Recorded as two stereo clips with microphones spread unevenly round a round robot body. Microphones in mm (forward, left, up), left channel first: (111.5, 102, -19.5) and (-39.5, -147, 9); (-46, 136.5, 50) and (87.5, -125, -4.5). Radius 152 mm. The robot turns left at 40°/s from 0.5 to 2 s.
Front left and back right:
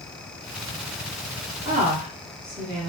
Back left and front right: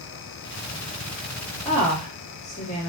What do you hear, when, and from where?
1.6 s a woman speaking: 170° right, 1.0 m; by 2.9 s straight behind, 1.0 m